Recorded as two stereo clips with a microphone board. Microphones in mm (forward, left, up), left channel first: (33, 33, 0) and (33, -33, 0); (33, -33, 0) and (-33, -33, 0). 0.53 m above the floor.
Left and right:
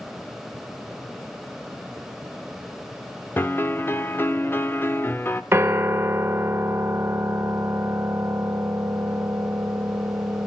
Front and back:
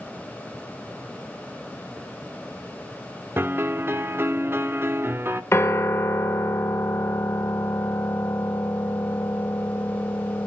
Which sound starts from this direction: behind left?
A piano, at 3.4 s.